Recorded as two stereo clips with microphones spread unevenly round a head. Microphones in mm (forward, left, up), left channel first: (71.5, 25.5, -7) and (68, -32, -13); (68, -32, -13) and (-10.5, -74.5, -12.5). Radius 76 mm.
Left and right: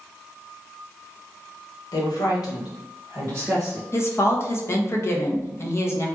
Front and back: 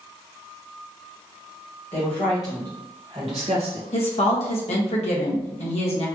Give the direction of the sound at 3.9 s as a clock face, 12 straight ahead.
10 o'clock.